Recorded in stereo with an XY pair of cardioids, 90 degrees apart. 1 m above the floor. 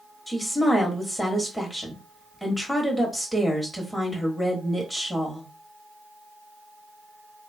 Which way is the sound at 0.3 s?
10° left.